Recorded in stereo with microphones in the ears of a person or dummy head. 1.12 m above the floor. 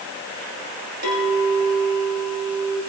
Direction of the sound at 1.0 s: 60° right (ahead or behind).